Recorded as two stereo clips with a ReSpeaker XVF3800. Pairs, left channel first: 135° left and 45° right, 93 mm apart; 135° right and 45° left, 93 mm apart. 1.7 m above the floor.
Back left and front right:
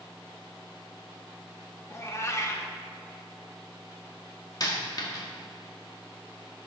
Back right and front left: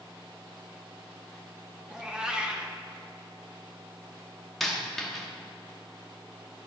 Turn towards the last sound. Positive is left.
turn(degrees=140)